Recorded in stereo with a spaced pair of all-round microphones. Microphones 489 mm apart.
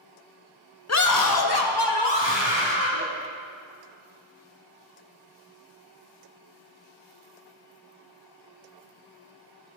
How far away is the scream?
About 0.5 m.